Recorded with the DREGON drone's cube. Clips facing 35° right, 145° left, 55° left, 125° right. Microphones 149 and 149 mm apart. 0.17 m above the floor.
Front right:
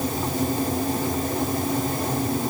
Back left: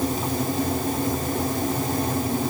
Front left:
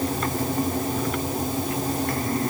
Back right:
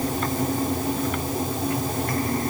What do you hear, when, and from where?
Only background noise.